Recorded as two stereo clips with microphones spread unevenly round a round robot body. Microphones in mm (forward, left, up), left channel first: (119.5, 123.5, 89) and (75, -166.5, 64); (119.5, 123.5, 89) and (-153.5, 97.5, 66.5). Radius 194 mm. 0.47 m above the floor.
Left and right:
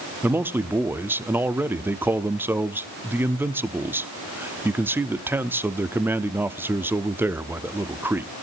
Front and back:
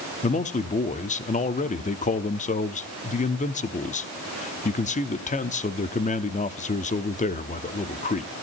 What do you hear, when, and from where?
0.2 s a man speaking: 35° right, 0.8 m